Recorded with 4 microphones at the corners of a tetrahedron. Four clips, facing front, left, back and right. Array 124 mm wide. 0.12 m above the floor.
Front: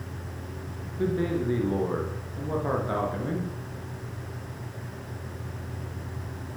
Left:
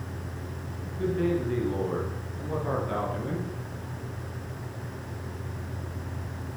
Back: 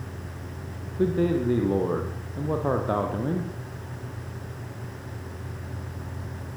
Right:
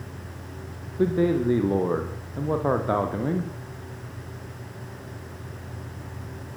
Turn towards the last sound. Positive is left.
turn(degrees=-120)